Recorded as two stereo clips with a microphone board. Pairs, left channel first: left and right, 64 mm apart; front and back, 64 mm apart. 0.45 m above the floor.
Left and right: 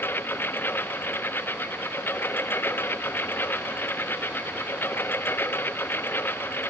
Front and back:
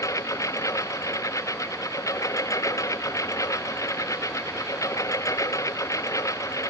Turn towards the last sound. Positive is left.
turn(degrees=30)